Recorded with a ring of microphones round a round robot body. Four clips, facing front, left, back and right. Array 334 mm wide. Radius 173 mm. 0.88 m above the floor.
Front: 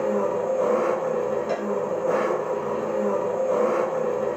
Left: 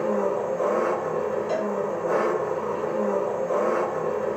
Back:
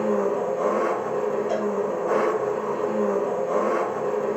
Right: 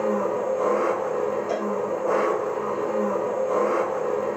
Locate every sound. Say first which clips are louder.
0.0 s an engine running: even, back 1 dB; 55° right, 1.7 m
1.5 s a cowbell: even, back 1 dB; 15° right, 1.3 m